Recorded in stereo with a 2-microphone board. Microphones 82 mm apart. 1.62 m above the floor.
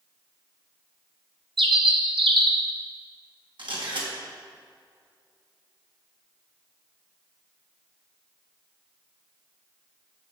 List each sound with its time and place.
1.6 s a bird: 80° right, 1.1 m
3.6 s a camera shutter: 75° right (ahead or behind), 2 m